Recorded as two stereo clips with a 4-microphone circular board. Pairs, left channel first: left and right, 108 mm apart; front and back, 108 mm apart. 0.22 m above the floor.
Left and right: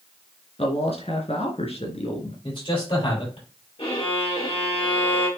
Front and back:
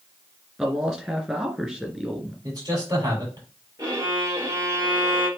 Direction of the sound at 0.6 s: 95° left.